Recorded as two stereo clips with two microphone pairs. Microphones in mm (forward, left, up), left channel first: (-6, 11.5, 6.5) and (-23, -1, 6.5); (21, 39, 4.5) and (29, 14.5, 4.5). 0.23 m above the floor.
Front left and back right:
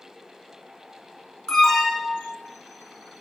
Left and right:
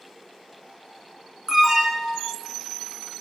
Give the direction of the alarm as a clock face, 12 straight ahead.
12 o'clock.